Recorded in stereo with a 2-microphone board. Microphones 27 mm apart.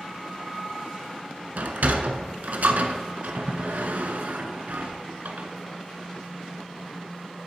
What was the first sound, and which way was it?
A sliding door, 85° right.